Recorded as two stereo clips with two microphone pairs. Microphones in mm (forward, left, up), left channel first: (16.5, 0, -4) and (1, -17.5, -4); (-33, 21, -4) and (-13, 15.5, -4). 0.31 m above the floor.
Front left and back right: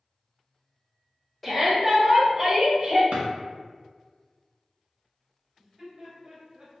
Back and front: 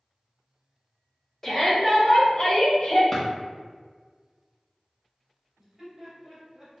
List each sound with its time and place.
1.4 s a shout: 125° left, 1.1 m; by 3.0 s 160° left, 1.6 m
3.1 s a drawer: 125° right, 1.2 m
5.6 s laughter: 90° right, 1.8 m